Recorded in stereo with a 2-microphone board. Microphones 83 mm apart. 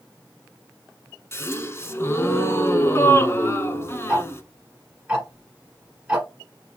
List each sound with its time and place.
1.3 s a gasp: 35° left (ahead or behind), 0.6 m
4.1 s ticking: 15° right (ahead or behind), 1.3 m